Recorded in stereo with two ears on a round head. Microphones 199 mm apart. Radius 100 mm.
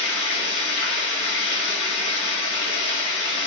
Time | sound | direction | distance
0.0 | running water | 85° left | 2 m